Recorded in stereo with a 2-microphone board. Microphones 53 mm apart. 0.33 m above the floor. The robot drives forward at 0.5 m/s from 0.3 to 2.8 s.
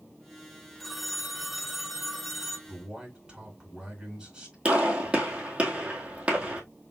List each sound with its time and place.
0.8 s a phone ringing: centre (ahead or behind), 0.8 m
2.7 s a man speaking: 15° right (ahead or behind), 4 m
4.7 s a gunshot: 25° right (ahead or behind), 2.5 m